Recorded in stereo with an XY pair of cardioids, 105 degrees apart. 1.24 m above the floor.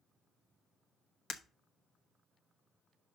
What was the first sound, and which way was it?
Breaking glass, 65° left.